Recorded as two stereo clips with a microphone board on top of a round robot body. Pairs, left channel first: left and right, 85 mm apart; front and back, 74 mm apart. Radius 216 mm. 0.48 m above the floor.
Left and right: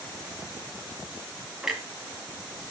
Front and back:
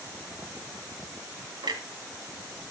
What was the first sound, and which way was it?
A clunk, 175° right.